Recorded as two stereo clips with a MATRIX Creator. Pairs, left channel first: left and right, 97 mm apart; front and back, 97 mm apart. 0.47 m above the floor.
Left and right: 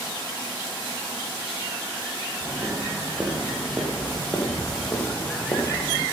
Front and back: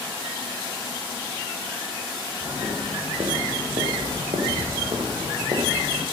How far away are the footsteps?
About 4.5 m.